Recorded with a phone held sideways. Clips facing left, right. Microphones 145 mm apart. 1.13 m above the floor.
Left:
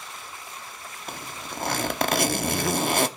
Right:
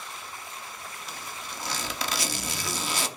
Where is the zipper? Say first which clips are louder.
Left 6 dB; 60° left (ahead or behind), 0.9 m.